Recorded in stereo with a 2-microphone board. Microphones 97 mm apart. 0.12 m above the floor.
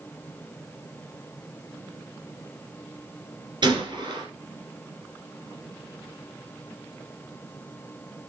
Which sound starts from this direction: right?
A gunshot, at 3.6 s.